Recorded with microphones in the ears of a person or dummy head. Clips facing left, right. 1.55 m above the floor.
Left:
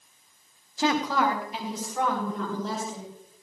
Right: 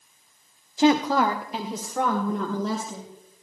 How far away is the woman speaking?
About 0.9 m.